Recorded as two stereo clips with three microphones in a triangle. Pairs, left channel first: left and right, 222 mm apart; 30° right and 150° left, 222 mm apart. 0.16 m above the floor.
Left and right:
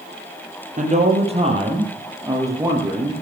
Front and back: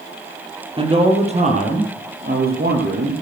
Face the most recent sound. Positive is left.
turn(degrees=-175)